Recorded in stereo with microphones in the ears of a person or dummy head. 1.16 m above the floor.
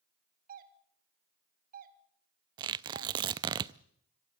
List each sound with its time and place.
0.5 s a doorbell: 45° right (ahead or behind), 2 m
2.6 s tearing paper: 20° right (ahead or behind), 0.6 m